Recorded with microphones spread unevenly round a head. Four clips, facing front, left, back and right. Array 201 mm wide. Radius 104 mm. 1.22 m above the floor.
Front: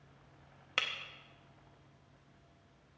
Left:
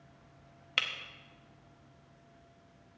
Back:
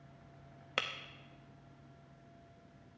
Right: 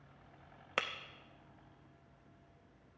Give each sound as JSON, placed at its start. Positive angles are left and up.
{"t": 0.8, "sound": "breaking glass", "azimuth_deg": -125, "distance_m": 0.6}